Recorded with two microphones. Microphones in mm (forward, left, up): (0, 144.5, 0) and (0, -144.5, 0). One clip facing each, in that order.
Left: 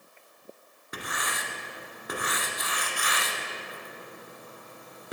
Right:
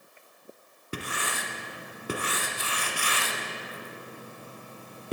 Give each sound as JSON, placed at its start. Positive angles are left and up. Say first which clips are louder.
{"t": 0.9, "sound": "writing", "louder": "right 3 dB", "side_deg": -35, "distance_m": 1.2}